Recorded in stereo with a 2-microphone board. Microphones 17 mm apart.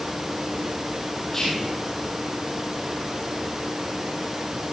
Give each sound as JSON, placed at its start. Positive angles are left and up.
{"t": 1.3, "sound": "whispering", "side_deg": 20, "distance_m": 6.0}